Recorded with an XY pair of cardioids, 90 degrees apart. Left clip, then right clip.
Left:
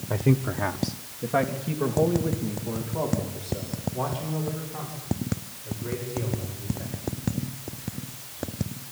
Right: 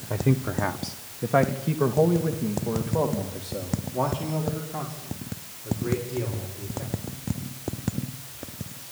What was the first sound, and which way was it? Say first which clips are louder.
A man speaking: left 1 dB; 5° left.